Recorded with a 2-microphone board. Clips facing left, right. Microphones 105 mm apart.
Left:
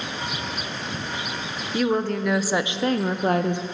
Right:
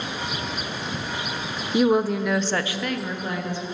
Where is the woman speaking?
20° right (ahead or behind), 0.9 m; by 3.6 s 60° left (ahead or behind), 0.8 m.